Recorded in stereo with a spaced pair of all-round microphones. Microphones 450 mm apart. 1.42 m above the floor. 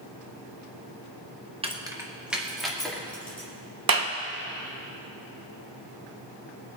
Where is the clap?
50° right (ahead or behind), 0.8 m.